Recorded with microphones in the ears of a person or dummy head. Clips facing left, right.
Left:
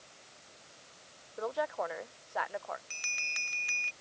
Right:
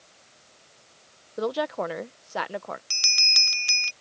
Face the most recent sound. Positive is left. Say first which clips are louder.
# right 4 dB
turn(degrees=-40)  # may be behind; listen again after turning